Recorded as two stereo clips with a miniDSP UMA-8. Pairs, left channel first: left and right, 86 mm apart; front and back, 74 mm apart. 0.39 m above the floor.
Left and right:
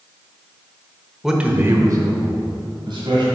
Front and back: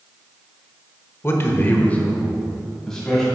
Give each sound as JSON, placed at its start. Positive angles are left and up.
{"t": 1.2, "sound": "a man speaking", "azimuth_deg": -5, "distance_m": 0.9}